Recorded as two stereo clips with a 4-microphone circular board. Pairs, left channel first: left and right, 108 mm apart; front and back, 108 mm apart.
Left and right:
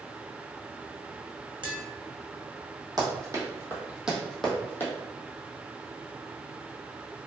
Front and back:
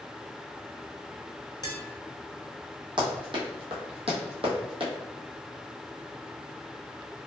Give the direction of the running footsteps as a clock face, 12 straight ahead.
5 o'clock.